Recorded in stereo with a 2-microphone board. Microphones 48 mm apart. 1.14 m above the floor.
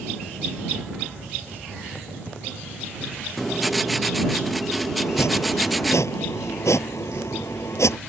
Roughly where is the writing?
Centre.